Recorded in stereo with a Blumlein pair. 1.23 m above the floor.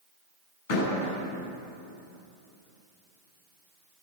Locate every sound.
0.7 s a door slam: 60° left, 9 m